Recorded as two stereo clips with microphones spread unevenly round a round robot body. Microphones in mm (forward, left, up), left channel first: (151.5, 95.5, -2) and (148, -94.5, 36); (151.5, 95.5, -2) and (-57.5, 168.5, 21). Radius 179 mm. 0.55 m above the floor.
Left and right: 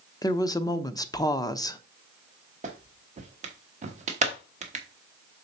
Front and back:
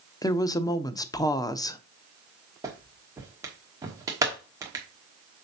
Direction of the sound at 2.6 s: 125° right.